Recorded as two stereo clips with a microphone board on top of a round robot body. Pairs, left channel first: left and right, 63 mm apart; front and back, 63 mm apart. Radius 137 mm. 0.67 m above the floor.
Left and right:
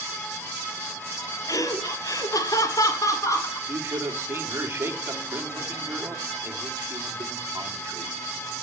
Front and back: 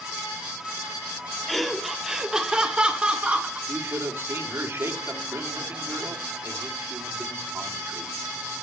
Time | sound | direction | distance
1.5 | laughter | 90° left | 1.7 m
3.7 | a man speaking | 135° right | 2.5 m